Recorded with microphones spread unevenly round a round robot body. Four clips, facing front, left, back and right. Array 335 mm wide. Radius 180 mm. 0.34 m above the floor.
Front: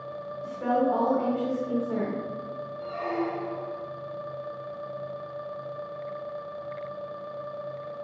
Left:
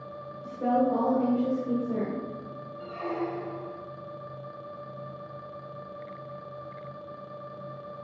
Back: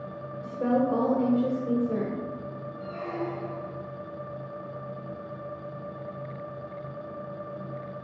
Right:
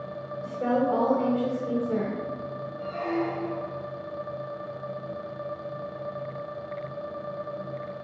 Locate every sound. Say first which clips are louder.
0.4 s a woman speaking: even, even; 170° right, 1.4 m
2.8 s a squeak: right 3 dB, front 3 dB; 90° left, 2.5 m